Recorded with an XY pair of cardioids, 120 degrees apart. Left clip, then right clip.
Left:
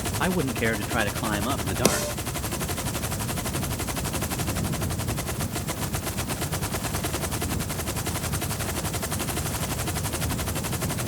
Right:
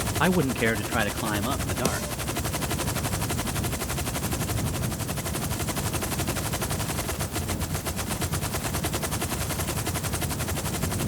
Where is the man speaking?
20° right; by 2.1 s 10° left.